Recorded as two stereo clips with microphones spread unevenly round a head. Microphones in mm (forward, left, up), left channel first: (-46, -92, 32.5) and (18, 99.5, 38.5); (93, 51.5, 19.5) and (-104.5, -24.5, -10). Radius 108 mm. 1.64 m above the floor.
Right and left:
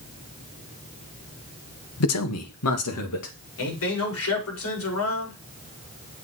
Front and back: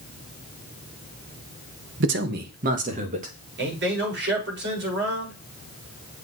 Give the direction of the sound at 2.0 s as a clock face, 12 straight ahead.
4 o'clock.